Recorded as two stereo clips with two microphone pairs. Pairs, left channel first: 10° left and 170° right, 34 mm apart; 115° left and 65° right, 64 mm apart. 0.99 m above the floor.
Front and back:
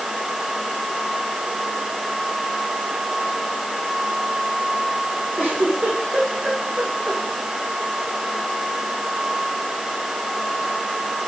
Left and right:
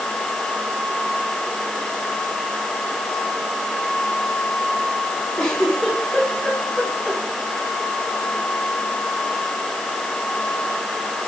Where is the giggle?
160° right, 9.5 m.